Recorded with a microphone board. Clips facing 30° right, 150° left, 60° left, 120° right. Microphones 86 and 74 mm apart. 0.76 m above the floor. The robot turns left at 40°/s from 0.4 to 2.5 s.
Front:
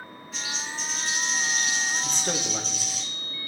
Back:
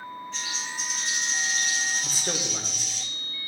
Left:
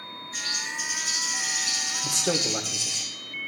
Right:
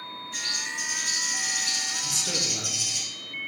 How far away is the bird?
About 5.5 m.